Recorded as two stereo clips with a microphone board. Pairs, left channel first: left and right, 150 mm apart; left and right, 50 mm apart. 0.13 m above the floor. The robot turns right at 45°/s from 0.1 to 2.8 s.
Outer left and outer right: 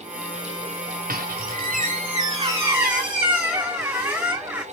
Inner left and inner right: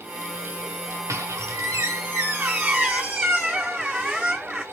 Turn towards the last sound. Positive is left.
turn(degrees=-10)